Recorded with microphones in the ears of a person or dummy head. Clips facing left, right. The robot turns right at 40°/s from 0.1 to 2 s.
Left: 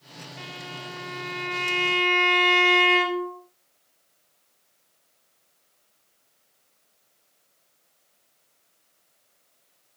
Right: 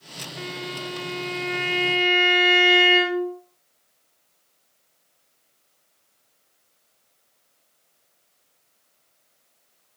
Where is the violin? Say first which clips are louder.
Right 8 dB; 75° right, 1.5 m; by 3.4 s 10° right, 1.5 m.